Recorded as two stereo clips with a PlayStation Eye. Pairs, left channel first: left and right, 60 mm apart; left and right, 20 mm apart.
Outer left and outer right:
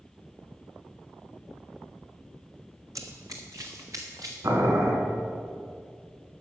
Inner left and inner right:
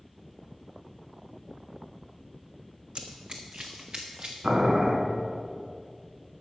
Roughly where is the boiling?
Right.